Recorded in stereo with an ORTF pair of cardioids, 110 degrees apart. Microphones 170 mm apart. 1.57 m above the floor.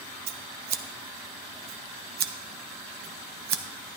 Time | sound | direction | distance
0.3 | scissors | 70° right | 0.8 m